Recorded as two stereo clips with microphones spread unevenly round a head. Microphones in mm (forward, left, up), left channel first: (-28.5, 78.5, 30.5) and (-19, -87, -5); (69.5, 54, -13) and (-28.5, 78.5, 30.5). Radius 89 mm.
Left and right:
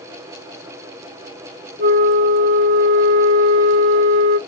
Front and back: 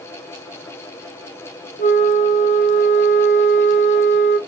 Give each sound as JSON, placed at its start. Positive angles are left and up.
{"t": 1.8, "sound": "a flute", "azimuth_deg": -50, "distance_m": 2.0}